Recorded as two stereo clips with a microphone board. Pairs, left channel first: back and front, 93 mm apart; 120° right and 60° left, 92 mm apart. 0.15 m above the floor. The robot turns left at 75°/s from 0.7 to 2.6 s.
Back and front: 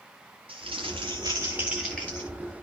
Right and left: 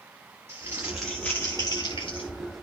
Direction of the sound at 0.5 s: 5° right.